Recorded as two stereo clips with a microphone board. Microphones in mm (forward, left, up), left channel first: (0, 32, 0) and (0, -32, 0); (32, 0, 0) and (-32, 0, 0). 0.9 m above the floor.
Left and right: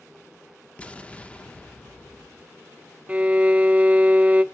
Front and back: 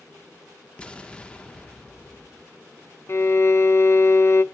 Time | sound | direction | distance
0.8 | an explosion | 50° left | 0.9 m
3.1 | a violin | 25° right | 0.6 m